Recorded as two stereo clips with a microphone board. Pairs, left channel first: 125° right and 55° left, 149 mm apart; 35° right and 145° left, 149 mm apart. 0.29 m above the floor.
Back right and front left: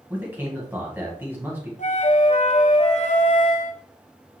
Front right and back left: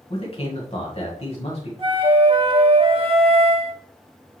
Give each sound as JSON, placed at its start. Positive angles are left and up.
{"t": 0.1, "sound": "a man speaking", "azimuth_deg": -15, "distance_m": 1.9}
{"t": 1.8, "sound": "a flute", "azimuth_deg": -160, "distance_m": 1.3}